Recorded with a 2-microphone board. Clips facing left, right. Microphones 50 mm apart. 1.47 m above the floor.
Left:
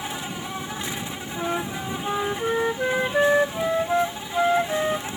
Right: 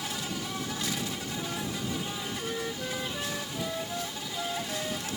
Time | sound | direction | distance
0.0 | an insect | 25° left (ahead or behind) | ?
1.4 | a flute | 60° left (ahead or behind) | ?